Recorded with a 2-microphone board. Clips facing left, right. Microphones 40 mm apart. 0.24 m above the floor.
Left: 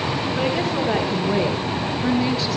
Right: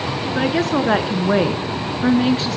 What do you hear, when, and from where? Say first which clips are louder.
0.3 s a woman speaking: right 6 dB; 65° right (ahead or behind), 4 m; by 2.6 s 45° right (ahead or behind), 4 m